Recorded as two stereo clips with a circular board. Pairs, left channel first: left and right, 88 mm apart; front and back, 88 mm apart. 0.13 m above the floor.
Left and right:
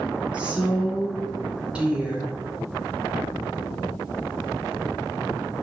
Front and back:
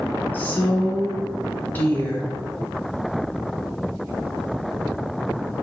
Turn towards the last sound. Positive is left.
turn(degrees=-30)